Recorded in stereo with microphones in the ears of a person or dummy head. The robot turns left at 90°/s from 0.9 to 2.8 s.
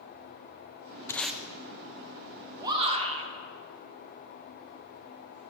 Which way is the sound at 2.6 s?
5° right (ahead or behind).